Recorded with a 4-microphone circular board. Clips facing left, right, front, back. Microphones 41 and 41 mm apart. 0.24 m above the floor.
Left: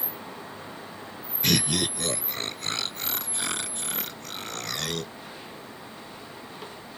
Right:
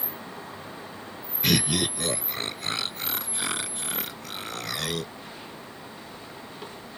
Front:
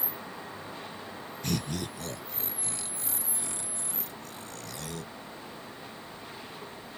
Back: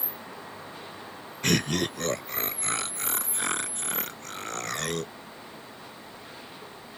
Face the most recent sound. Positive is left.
turn(degrees=-175)